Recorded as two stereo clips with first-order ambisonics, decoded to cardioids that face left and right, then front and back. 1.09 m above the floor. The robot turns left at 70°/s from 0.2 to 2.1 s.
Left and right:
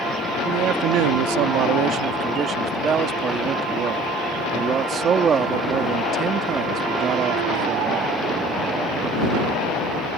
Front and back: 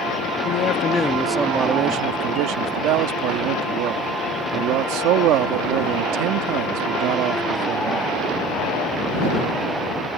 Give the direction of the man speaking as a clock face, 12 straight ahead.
1 o'clock.